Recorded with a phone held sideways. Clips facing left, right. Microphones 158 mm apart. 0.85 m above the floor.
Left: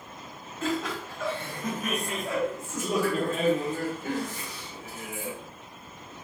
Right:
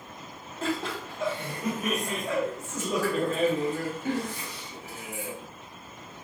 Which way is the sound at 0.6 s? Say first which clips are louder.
Left 1 dB; 35° right (ahead or behind).